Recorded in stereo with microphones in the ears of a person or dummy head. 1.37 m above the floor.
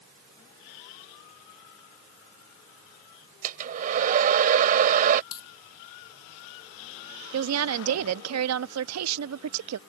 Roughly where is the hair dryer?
Right.